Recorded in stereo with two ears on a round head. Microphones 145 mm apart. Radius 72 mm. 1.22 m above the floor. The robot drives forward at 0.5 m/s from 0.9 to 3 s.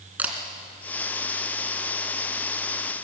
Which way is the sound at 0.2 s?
10° right (ahead or behind).